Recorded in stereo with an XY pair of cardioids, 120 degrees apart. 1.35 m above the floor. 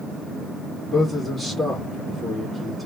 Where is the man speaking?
5° left, 1.6 m.